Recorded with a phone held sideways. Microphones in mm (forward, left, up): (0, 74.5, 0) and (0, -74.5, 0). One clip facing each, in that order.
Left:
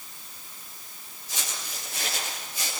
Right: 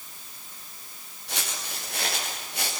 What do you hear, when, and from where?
1.3 s footsteps: 75° right (ahead or behind), 8.5 m; by 2.7 s 70° right (ahead or behind), 8 m